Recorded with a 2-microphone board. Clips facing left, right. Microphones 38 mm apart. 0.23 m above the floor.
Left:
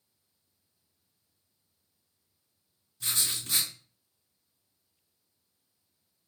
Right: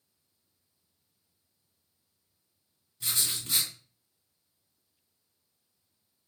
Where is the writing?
15° right (ahead or behind), 2.5 m.